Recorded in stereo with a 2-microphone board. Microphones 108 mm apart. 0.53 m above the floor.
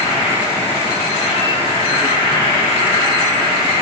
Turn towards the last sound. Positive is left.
turn(degrees=70)  # may be behind; listen again after turning